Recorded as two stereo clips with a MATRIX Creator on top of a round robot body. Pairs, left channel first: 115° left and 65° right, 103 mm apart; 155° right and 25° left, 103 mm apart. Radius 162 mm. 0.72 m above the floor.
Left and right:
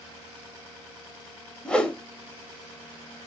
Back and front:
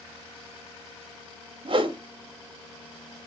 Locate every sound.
1.6 s a whoosh: 35° left, 0.7 m